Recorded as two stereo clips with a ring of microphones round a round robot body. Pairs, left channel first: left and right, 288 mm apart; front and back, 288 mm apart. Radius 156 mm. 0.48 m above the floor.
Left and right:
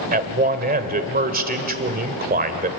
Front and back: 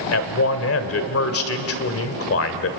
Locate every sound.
0.1 s a man speaking: 35° right, 1.8 m